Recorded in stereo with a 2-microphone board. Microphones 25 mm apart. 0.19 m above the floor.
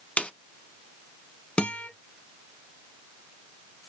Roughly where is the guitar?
Left.